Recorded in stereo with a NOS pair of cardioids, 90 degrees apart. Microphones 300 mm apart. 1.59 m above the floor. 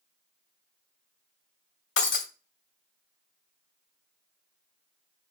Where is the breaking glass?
45° left, 2.5 m.